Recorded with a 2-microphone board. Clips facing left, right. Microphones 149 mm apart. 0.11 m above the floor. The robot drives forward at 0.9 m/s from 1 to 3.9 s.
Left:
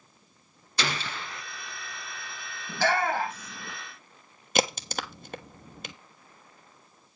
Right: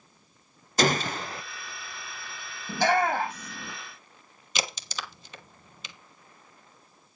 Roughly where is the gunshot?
Right.